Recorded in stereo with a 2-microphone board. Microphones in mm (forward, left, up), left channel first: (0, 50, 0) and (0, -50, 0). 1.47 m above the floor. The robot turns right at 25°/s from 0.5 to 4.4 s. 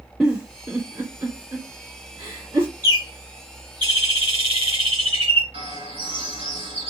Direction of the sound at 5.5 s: 90° right.